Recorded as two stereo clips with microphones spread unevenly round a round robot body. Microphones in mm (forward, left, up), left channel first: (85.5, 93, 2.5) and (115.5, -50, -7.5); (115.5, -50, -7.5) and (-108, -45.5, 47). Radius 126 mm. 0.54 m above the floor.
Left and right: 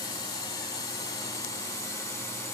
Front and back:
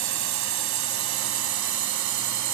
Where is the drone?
175° left; by 2.5 s straight behind.